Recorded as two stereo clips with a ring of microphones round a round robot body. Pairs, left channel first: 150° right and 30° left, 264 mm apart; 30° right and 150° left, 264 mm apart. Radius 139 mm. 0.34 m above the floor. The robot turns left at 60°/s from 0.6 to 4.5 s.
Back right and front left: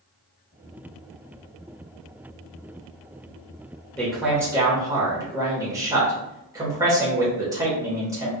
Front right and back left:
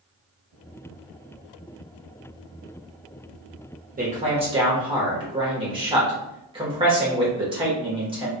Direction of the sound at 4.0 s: 130° left.